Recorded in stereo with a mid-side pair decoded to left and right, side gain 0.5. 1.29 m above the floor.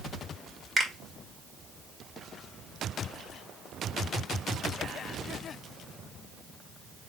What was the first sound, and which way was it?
A finger snap, 15° right.